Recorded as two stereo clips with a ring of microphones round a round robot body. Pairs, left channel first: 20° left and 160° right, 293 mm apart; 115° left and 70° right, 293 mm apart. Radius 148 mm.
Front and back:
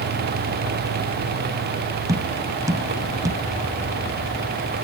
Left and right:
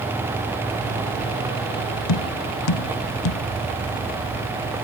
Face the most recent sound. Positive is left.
turn(degrees=125)